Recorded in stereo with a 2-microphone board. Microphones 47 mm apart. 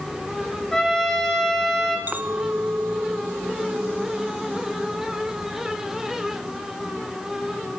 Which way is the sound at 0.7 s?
10° left (ahead or behind).